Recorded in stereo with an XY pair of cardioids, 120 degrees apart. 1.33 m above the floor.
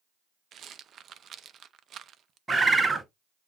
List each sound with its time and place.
0.5 s a rattle: 50° right, 0.5 m
2.5 s a bird: 20° right, 0.8 m